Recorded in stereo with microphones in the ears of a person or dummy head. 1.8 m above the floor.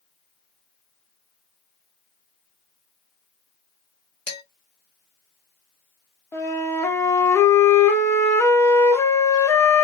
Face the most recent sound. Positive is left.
turn(degrees=15)  # may be behind; listen again after turning